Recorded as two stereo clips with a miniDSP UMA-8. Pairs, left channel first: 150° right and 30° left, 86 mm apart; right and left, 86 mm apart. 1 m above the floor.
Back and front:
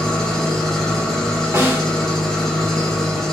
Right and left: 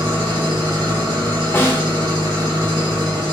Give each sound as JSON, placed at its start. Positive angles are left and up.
{"t": 0.0, "sound": "an engine running", "azimuth_deg": 125, "distance_m": 1.2}
{"t": 1.5, "sound": "a snare drum", "azimuth_deg": -30, "distance_m": 0.9}